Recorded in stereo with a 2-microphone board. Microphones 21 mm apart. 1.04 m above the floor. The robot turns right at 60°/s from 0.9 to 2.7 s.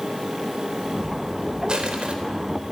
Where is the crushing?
50° right (ahead or behind), 3.5 m; by 2.1 s 75° right (ahead or behind), 3.5 m.